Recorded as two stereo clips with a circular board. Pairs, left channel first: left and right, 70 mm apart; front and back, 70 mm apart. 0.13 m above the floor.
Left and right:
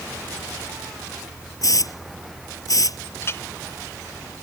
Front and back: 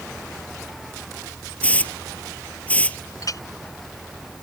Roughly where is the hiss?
Left.